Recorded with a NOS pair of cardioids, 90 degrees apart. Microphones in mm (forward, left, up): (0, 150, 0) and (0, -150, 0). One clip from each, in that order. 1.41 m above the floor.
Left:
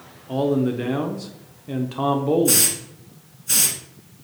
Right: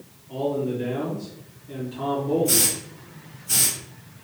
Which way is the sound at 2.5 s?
45° left.